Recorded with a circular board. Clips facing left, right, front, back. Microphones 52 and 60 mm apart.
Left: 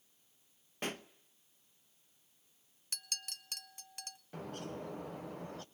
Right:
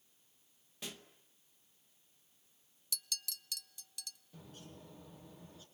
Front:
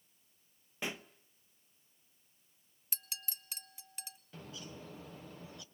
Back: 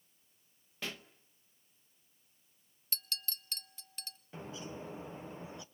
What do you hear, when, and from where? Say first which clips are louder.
0.8 s a pop: left 8 dB, front 2 dB; 70° left, 0.8 m
2.9 s a clink: even, back 5 dB; 75° left, 0.5 m
4.3 s a bird: left 13 dB, back 5 dB; 115° left, 1.0 m